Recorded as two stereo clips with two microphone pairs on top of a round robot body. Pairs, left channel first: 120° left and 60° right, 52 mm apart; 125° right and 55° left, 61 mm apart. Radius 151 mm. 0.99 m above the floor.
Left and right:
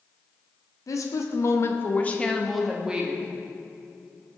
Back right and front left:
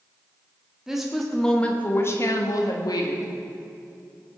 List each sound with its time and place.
0.9 s a woman speaking: 135° left, 1.9 m; by 3.3 s 130° right, 2.0 m